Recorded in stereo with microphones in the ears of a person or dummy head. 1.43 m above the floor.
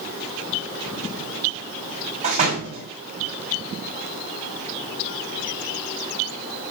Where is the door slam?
40° right (ahead or behind), 6.5 m.